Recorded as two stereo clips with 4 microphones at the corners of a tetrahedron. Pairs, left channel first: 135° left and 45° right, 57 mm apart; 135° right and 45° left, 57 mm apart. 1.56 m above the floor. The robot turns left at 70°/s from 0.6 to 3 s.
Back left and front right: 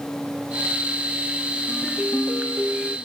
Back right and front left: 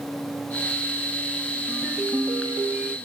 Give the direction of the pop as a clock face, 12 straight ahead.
I don't hear a pop.